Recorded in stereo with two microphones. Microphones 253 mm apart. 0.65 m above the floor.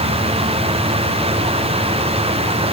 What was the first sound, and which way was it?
Only background noise.